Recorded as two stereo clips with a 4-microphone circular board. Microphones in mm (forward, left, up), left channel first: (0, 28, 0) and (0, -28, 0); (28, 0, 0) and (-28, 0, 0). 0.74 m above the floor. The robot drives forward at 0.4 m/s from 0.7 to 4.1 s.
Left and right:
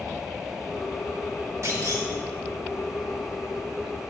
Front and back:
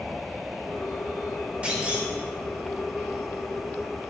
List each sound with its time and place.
1.6 s a clunk: 115° right, 1.4 m; by 2.1 s 120° right, 1.5 m